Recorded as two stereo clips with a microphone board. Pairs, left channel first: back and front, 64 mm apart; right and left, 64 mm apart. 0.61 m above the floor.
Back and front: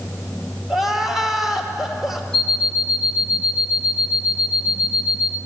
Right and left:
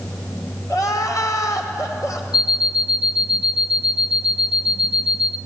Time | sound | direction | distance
0.7 | crying | 85° right | 2.5 m
2.3 | an alarm clock | 95° right | 0.8 m